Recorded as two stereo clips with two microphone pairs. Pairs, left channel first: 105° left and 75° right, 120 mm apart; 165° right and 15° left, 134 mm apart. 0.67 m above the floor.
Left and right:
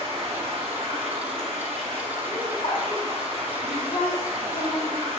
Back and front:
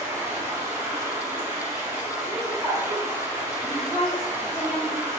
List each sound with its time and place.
0.0 s running water: 50° right, 1.0 m
2.3 s laughter: 85° left, 1.6 m
3.6 s a woman speaking: 90° left, 1.6 m